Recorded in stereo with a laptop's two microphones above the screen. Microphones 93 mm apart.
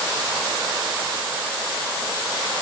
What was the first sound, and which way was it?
Only background noise.